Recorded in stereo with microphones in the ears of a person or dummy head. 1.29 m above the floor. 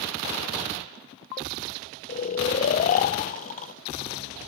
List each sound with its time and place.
2.1 s snoring: 40° left (ahead or behind), 0.6 m